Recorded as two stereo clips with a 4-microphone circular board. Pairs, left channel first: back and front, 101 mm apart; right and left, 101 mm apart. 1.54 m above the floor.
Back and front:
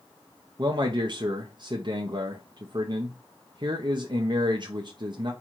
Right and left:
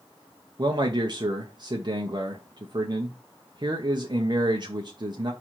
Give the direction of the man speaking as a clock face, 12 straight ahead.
11 o'clock.